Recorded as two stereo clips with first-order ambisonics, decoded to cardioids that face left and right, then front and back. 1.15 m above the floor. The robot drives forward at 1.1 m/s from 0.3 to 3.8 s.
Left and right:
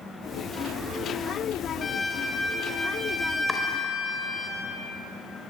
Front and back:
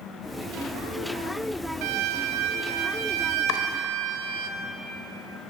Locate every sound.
1.8 s a violin: 160° left, 0.7 m; by 4.5 s 175° left, 3 m
3.5 s chopping: 10° left, 2.5 m